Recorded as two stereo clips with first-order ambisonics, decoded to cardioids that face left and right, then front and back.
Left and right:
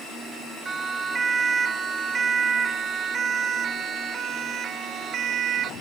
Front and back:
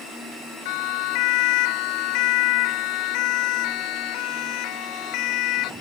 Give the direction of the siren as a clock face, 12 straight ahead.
12 o'clock.